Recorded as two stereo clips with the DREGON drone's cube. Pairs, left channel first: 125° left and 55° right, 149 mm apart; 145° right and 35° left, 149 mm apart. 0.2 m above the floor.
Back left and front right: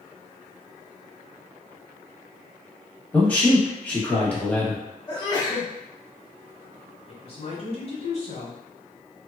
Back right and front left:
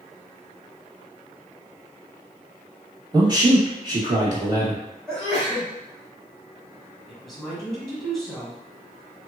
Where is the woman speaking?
125° left, 1.5 m.